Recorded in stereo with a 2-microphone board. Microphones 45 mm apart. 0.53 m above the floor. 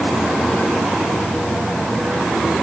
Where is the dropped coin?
I don't hear a dropped coin.